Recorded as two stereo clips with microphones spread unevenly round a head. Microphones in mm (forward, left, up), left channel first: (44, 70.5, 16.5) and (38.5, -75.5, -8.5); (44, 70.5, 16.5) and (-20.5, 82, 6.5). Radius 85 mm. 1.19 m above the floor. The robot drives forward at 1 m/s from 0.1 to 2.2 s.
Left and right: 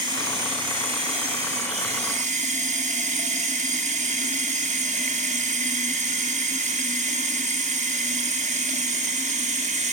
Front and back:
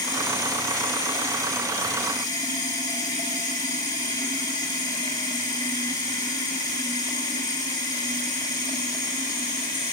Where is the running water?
30° right, 4.5 m; by 9.9 s 50° right, 2.5 m.